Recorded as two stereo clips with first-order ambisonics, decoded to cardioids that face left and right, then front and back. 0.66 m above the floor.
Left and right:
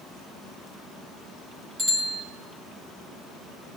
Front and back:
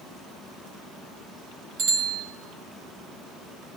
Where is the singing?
I don't hear singing.